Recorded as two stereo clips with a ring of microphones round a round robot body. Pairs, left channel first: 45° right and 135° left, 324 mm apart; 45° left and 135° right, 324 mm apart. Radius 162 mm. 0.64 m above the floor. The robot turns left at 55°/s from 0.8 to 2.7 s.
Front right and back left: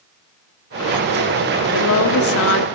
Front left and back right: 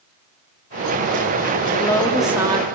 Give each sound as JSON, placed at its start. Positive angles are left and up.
{"t": 1.7, "sound": "a woman speaking", "azimuth_deg": -15, "distance_m": 0.9}